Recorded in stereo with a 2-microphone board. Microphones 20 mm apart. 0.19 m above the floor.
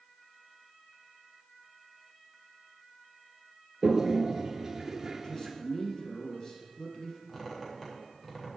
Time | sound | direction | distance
3.8 | a toilet flushing | 20° right (ahead or behind) | 1.4 m
5.2 | a man speaking | 50° left (ahead or behind) | 5.5 m
7.3 | a squeak | 5° left (ahead or behind) | 5.5 m